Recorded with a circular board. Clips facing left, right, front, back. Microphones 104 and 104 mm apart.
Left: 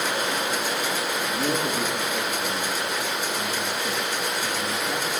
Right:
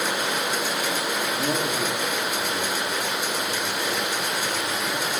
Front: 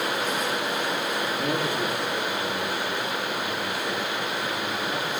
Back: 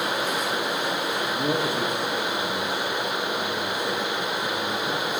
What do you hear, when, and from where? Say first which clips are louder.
1.3 s a man speaking: left 2 dB, back 3 dB; 130° left, 8.5 m